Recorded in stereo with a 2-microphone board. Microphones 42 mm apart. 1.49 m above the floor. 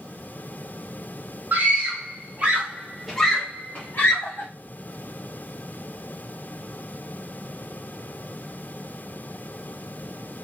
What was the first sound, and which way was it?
A scream, 50° right (ahead or behind).